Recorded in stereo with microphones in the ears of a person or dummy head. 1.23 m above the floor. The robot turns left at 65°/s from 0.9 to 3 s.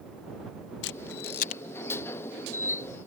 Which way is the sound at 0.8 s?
70° left (ahead or behind).